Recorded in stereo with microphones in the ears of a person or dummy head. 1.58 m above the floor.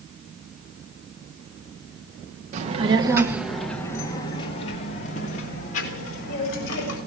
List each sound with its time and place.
2.5 s a child speaking: 35° right (ahead or behind), 1.0 m; by 7.0 s 55° left (ahead or behind), 3 m